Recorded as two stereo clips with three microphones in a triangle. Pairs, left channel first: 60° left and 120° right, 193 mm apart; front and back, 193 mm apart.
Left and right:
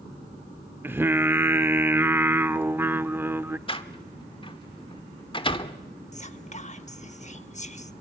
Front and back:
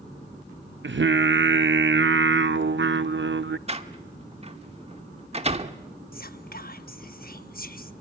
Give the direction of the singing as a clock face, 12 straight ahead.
7 o'clock.